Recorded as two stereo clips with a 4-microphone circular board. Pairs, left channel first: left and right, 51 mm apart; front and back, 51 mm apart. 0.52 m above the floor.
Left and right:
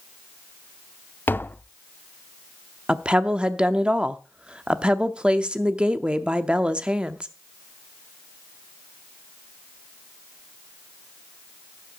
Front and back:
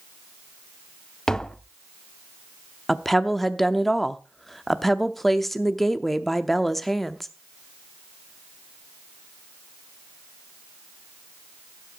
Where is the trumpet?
No trumpet in this recording.